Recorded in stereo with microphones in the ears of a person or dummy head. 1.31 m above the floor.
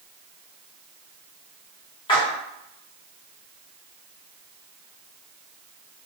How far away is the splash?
About 0.8 m.